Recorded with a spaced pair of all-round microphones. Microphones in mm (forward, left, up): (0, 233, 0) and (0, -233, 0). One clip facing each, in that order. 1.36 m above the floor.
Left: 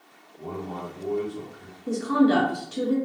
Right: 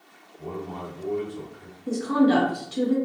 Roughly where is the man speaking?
Left.